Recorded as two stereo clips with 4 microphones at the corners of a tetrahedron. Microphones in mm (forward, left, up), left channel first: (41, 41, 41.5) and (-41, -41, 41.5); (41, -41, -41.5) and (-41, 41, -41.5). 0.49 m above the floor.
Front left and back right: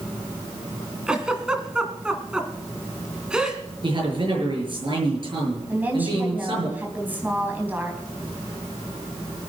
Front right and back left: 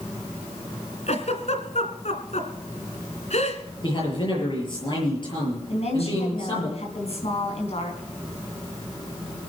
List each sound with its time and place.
1.1 s a giggle: 55° right, 1.8 m
3.8 s a man speaking: 90° right, 7.5 m
5.7 s a woman speaking: 60° right, 4 m